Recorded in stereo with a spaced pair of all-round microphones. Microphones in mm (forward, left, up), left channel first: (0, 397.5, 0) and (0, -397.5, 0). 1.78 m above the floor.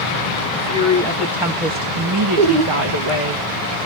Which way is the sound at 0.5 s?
10° left (ahead or behind).